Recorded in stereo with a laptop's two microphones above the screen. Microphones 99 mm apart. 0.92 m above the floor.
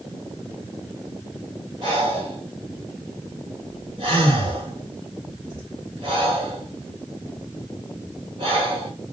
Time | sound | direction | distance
1.8 | breathing | 50° right (ahead or behind) | 1.3 m